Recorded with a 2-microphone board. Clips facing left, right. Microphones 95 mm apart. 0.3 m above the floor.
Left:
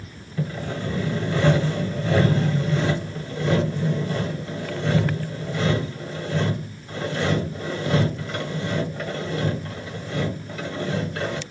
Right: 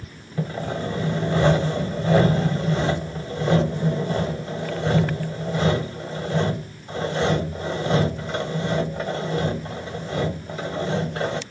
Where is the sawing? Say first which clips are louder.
Right 2 dB; 25° right (ahead or behind), 1.2 m.